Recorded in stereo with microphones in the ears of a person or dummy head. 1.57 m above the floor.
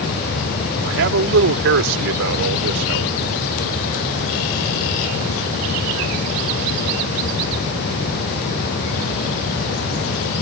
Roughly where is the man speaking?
Right.